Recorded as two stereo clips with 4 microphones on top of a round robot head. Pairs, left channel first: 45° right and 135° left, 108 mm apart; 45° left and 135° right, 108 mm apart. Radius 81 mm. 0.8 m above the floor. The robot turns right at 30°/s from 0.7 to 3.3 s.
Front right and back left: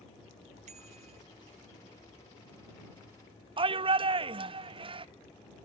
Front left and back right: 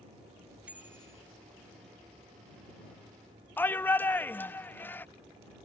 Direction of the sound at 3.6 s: 115° left.